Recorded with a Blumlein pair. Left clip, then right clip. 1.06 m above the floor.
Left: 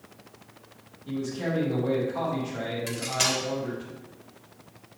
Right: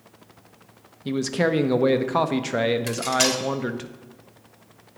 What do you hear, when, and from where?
1.1 s a man speaking: 40° right, 0.7 m
2.9 s cutlery clinking: 15° right, 1.1 m